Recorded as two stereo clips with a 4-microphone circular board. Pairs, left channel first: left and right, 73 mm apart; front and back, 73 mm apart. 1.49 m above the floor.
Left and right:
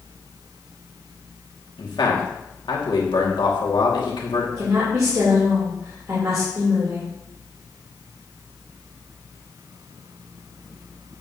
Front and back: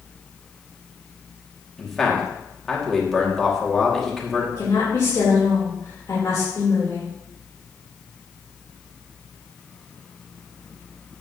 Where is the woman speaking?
45° right, 3 m.